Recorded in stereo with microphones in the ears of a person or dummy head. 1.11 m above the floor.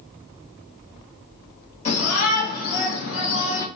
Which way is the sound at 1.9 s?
35° left (ahead or behind).